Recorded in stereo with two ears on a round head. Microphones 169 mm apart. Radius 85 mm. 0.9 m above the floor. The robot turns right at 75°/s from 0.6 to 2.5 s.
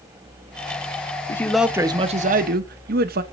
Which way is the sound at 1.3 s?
160° left.